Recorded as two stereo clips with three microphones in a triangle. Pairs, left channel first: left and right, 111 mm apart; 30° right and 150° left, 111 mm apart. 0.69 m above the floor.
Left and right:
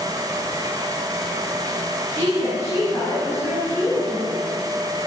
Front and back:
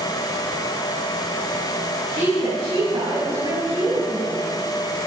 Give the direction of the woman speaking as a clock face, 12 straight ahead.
7 o'clock.